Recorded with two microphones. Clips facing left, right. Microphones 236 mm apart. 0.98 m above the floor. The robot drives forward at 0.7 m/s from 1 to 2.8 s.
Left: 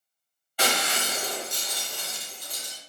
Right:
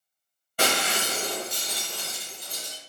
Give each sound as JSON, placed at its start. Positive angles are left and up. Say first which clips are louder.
{"t": 0.6, "sound": "breaking glass", "louder": "right 2 dB", "side_deg": -50, "distance_m": 1.4}